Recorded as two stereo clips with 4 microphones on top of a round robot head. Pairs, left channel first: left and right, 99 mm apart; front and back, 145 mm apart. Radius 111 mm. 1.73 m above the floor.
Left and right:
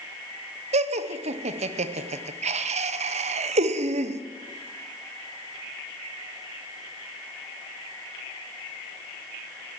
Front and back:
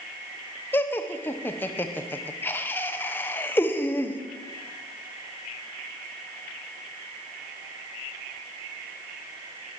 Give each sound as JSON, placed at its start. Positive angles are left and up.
{"t": 0.7, "sound": "laughter", "azimuth_deg": -80, "distance_m": 1.1}